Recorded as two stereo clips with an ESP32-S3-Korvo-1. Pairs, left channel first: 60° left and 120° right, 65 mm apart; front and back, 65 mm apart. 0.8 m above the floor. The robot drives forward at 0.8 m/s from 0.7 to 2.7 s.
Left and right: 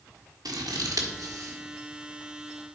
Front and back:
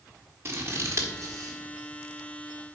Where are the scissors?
130° right, 1.4 m; by 1.6 s 145° right, 1.9 m.